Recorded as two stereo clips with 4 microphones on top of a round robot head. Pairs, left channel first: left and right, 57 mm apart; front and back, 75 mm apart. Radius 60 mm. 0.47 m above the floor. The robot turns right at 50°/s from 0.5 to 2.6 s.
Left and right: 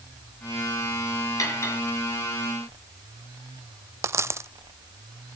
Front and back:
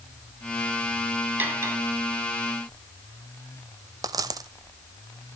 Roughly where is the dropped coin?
Behind right.